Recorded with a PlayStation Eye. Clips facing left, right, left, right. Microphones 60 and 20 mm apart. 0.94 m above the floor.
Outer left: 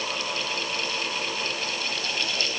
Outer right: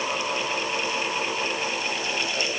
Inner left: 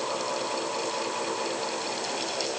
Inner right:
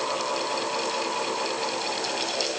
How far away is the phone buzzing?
No phone buzzing in this recording.